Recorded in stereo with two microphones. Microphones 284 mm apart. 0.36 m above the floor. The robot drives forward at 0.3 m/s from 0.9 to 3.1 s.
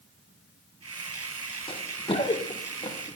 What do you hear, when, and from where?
1.7 s running footsteps: 20° left (ahead or behind), 1.1 m; by 3.2 s 15° left (ahead or behind), 2.5 m